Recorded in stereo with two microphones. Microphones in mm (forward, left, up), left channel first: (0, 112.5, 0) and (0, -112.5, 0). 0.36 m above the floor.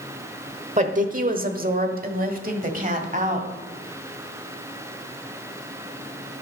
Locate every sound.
0.8 s a woman speaking: 30° right (ahead or behind), 0.9 m; by 3.5 s 35° right (ahead or behind), 1.8 m